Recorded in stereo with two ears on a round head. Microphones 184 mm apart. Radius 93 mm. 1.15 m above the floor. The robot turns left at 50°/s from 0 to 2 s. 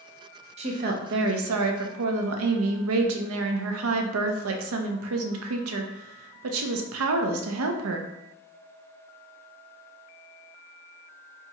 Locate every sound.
0.6 s a woman speaking: 30° right, 0.5 m; by 8.1 s 100° right, 0.5 m